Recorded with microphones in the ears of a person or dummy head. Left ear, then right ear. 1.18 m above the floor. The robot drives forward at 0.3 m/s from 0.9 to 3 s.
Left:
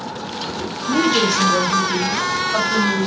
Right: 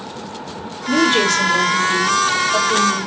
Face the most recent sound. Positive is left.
turn(degrees=-25)  # may be behind; listen again after turning